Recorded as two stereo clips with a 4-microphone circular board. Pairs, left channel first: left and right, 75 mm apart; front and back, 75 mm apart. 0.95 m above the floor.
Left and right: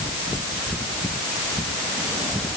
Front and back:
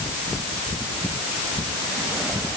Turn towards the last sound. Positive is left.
No sound to turn to.